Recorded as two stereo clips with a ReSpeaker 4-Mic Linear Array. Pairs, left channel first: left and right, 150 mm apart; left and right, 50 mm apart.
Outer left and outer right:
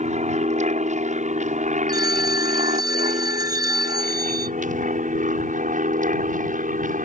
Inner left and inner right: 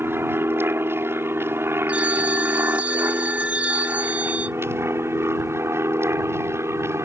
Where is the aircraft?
50° right (ahead or behind); by 7.1 s 60° right (ahead or behind).